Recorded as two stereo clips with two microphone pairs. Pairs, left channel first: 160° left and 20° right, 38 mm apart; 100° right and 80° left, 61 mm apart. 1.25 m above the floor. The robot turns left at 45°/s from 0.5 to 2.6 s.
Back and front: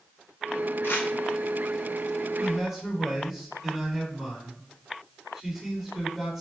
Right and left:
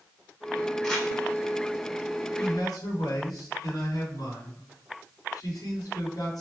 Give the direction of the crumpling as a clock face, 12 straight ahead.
6 o'clock.